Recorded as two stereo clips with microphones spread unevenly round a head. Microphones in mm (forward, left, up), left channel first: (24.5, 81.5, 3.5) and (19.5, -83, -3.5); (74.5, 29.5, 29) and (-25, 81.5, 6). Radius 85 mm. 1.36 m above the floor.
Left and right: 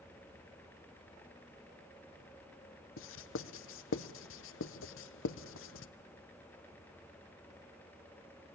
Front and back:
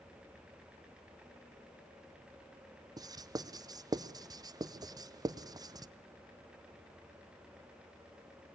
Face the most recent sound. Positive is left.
turn(degrees=100)